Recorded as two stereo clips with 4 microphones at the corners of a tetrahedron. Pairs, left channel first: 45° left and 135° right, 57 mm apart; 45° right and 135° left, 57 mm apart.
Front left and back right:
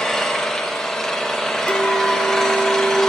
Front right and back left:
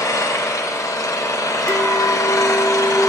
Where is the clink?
105° left, 1.3 m.